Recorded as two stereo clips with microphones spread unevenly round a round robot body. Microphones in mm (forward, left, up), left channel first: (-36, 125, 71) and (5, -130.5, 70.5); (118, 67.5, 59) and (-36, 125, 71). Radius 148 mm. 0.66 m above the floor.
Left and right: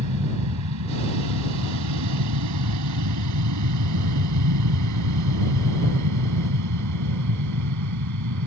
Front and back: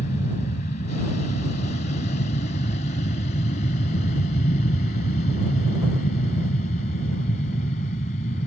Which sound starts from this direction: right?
An aircraft, at 0.0 s.